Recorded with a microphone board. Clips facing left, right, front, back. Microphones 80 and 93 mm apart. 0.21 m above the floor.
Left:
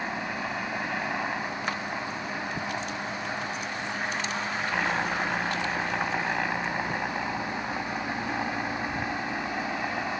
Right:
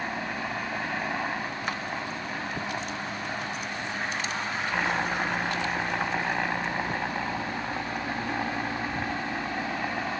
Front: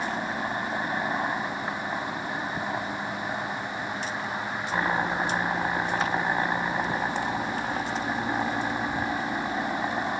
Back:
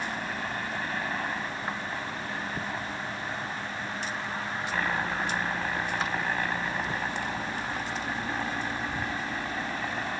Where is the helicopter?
5° right.